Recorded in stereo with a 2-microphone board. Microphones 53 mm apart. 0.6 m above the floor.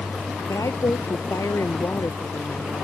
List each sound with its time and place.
0.5 s a woman speaking: 80° left